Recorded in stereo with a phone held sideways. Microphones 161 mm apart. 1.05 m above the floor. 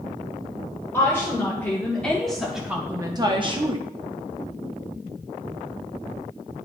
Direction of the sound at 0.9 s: 15° left (ahead or behind).